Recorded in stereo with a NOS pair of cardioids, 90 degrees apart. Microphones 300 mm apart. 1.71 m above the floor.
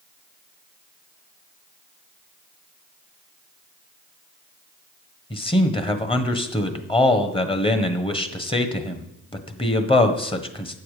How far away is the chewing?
I don't hear chewing.